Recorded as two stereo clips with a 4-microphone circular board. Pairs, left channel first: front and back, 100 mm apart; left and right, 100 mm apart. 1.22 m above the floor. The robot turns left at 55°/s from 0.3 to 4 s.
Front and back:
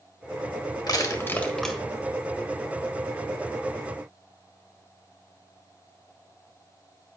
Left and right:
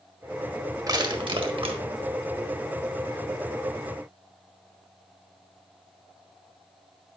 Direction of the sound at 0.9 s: 45° right.